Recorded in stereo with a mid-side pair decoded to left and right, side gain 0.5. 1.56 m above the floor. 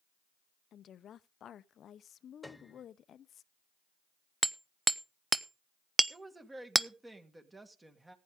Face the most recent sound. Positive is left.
turn(degrees=-20)